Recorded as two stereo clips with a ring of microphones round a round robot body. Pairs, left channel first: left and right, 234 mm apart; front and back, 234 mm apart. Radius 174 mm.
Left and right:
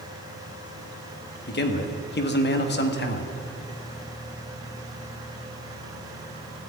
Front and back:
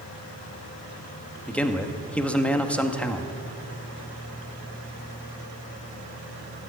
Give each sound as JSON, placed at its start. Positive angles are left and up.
{"t": 1.5, "sound": "a man speaking", "azimuth_deg": 80, "distance_m": 1.4}